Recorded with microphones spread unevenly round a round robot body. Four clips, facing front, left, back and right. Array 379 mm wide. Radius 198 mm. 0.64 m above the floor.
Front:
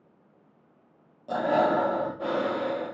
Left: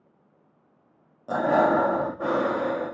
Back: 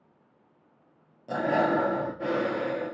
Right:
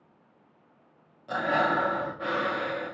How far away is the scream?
No scream in this recording.